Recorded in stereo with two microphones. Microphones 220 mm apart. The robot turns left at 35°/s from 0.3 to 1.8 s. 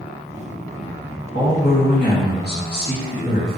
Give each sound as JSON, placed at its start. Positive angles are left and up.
{"t": 1.3, "sound": "a man speaking", "side_deg": 60, "distance_m": 2.0}